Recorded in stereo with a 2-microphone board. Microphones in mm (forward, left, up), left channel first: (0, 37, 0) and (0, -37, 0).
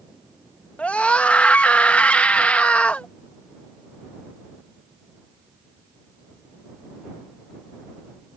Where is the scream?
20° left (ahead or behind).